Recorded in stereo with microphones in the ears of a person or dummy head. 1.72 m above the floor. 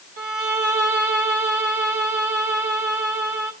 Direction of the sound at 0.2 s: 40° right (ahead or behind).